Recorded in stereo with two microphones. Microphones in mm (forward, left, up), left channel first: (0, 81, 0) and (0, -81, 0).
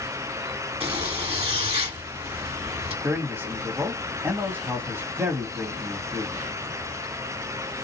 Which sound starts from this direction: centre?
A man speaking, at 3.0 s.